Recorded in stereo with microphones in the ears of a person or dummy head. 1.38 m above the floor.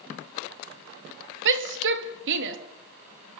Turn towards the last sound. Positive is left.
turn(degrees=-60)  # may be behind; listen again after turning